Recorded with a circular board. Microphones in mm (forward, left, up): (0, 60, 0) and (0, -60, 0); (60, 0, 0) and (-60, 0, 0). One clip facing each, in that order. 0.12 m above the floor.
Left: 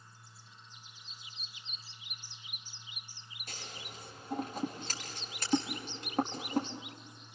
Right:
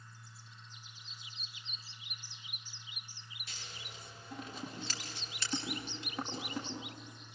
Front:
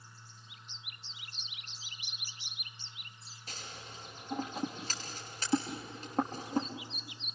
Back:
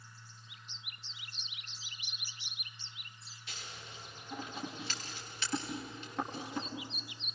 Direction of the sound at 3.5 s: 50° left.